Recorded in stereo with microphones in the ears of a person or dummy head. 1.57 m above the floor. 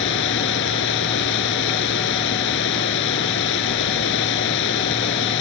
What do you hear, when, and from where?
0.0 s running water: 65° left (ahead or behind)